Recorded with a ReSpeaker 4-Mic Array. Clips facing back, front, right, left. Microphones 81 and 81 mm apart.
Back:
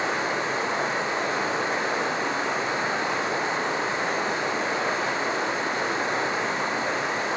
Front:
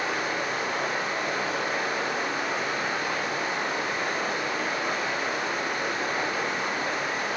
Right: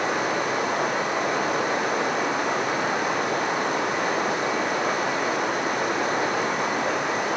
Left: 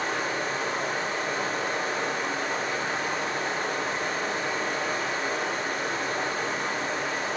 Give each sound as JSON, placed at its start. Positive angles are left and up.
{"t": 0.0, "sound": "running water", "azimuth_deg": -115, "distance_m": 5.0}